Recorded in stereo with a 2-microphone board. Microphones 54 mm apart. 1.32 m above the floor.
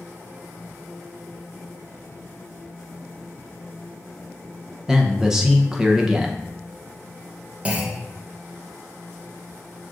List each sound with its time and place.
4.9 s a man speaking: 10° right (ahead or behind), 0.7 m
7.7 s a clunk: 20° right (ahead or behind), 0.6 m